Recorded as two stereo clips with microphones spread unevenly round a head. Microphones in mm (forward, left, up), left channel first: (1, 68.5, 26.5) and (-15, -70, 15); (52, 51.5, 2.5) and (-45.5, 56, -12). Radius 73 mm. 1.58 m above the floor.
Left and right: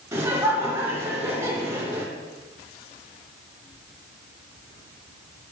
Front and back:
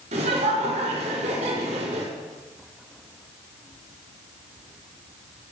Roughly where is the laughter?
Behind.